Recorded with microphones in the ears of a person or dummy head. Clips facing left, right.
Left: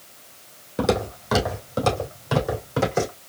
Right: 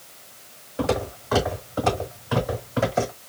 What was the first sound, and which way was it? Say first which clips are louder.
Footsteps: left 2 dB; 50° left (ahead or behind).